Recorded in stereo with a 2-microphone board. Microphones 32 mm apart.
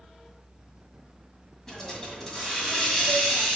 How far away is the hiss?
About 1.9 m.